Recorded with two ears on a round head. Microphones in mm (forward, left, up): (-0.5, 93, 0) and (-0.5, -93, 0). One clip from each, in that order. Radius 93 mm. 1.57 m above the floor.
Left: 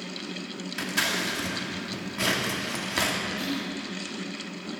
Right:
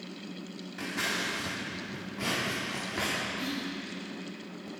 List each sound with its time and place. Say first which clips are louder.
0.8 s scissors: left 5 dB; 70° left (ahead or behind), 2.5 m
3.4 s whispering: left 4 dB; 35° left (ahead or behind), 5.5 m